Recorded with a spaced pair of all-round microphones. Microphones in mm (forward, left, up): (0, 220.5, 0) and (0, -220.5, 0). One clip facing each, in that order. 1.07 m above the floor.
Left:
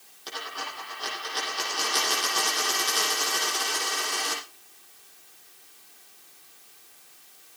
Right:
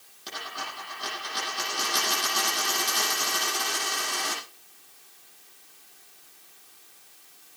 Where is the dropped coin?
40° right (ahead or behind), 8.5 m.